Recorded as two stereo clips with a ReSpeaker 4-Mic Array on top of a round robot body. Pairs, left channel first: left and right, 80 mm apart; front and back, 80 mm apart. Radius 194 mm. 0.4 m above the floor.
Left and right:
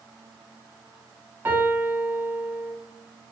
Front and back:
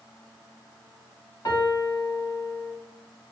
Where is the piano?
30° right, 1.0 m.